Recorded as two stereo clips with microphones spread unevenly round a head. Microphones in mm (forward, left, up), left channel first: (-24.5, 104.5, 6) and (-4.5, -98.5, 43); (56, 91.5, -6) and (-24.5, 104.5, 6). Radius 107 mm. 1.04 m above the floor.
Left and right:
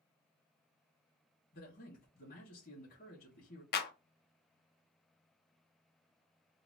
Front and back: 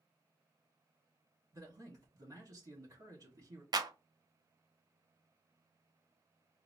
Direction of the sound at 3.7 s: 130° left.